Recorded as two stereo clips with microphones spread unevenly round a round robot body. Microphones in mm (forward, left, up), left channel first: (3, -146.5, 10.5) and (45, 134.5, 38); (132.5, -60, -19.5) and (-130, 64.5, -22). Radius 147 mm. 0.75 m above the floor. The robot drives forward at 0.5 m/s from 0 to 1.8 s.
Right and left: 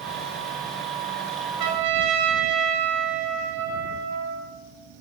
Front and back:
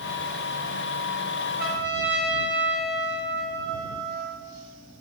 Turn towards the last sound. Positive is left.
turn(degrees=100)